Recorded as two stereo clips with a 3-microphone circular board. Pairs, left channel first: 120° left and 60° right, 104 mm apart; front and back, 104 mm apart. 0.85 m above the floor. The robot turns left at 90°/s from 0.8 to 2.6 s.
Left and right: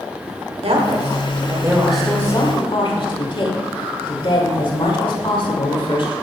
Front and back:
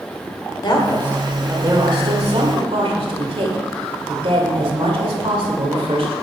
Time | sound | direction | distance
0.6 | a woman speaking | 45° right | 2.5 m